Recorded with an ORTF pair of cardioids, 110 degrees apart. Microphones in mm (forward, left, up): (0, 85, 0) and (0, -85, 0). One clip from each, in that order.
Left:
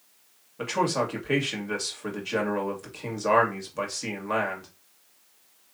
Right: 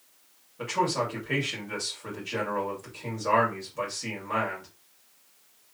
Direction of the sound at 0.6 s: 30° left.